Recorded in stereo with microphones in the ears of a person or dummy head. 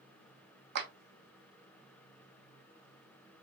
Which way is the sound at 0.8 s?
65° right (ahead or behind).